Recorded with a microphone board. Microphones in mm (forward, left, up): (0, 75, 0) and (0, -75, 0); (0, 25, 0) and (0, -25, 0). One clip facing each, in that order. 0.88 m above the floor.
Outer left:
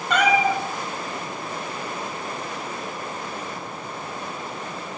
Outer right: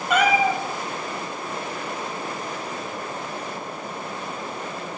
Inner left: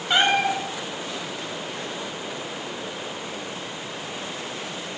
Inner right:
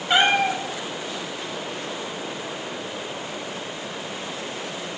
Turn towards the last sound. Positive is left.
turn(degrees=-10)  # may be behind; listen again after turning